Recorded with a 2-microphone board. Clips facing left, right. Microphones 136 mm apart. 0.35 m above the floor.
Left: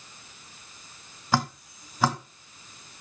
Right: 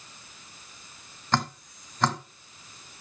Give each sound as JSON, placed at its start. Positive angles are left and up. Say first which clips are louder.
{"t": 1.3, "sound": "dripping", "louder": "left 1 dB", "side_deg": 10, "distance_m": 1.5}